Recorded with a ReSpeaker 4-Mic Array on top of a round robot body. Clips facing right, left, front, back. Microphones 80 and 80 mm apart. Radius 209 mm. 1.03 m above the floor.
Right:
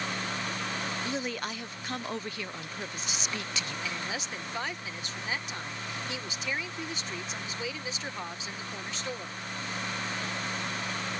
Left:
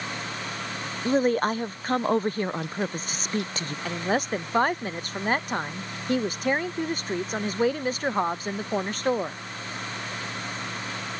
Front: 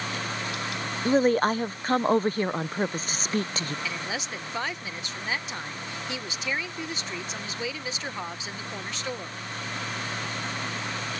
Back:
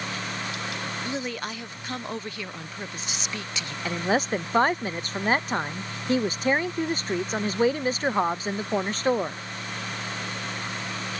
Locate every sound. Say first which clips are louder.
1.1 s a woman speaking: left 12 dB, front 15 dB; 45° left
3.9 s a woman speaking: left 10 dB, back 8 dB; 130° left